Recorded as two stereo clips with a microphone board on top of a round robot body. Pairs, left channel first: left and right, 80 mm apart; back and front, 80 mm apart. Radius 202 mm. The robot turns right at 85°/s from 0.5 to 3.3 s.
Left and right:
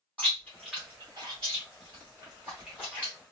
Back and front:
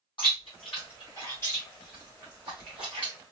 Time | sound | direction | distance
0.2 | chewing | 165° left | 0.6 m